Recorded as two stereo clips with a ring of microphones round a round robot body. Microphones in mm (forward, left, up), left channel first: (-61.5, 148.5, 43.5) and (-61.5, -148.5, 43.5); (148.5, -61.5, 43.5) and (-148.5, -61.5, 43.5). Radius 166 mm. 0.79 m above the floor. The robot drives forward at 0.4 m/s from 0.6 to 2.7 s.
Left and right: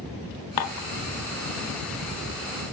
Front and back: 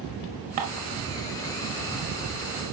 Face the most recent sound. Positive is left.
turn(degrees=145)